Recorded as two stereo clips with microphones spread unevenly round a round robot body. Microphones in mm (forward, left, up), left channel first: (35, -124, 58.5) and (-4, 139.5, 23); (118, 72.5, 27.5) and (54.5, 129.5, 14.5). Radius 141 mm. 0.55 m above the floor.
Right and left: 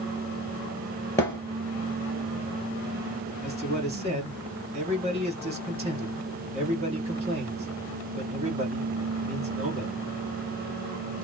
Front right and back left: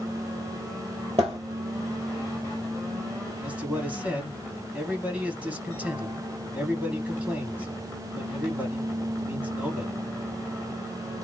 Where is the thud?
160° right, 1.1 m.